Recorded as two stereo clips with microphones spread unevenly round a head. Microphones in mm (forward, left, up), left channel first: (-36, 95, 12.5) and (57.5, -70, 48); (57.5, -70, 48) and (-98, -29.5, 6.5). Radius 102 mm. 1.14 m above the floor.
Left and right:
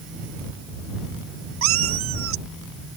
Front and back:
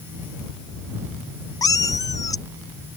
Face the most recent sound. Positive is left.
turn(degrees=-80)